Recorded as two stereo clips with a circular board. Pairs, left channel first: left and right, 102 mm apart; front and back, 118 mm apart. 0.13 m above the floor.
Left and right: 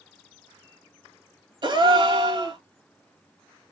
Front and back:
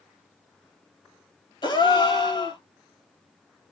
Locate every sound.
1.6 s a gasp: 50° right, 0.6 m